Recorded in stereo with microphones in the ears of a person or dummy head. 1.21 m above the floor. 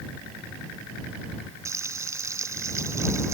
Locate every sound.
1.6 s frying: 20° right (ahead or behind)